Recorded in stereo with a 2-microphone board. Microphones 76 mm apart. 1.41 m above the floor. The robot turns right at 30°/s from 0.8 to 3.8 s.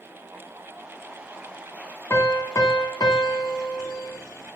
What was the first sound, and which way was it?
A piano, 30° left.